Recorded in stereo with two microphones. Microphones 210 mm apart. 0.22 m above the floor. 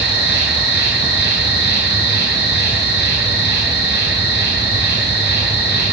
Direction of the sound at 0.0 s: 55° left (ahead or behind).